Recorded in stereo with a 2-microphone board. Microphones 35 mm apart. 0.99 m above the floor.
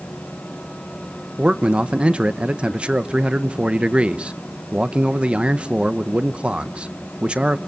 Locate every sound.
1.4 s a man speaking: 35° right (ahead or behind), 0.9 m